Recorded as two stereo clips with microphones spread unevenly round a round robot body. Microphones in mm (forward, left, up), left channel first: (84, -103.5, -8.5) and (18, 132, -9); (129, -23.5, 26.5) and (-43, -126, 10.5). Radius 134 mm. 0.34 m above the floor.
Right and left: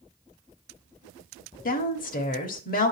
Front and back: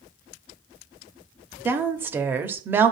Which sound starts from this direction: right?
A woman speaking, at 1.6 s.